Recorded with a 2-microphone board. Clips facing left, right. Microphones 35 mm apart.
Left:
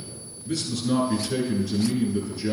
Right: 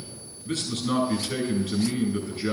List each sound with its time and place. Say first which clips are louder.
0.5 s a man speaking: left 2 dB; 40° right (ahead or behind), 7 m